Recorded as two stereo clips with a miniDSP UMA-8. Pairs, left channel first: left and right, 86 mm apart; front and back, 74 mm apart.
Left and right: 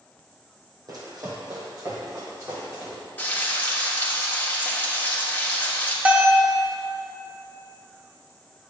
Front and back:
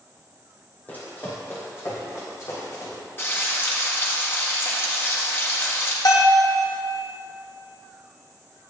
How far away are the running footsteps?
About 3 m.